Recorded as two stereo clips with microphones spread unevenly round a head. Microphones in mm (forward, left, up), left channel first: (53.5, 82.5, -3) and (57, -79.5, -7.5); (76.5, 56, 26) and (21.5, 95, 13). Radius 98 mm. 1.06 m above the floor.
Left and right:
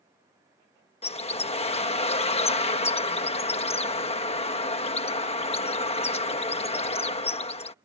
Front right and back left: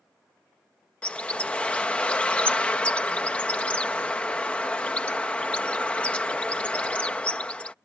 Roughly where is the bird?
Ahead left.